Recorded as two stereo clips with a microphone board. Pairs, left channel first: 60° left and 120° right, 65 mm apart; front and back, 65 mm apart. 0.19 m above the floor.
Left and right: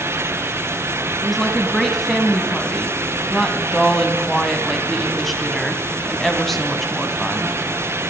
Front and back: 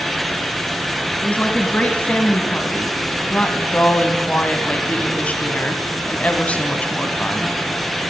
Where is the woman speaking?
20° right, 1.0 m.